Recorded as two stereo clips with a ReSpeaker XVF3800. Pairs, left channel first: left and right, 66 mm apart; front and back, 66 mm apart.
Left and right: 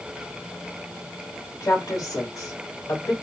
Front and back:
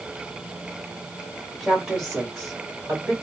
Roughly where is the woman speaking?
Left.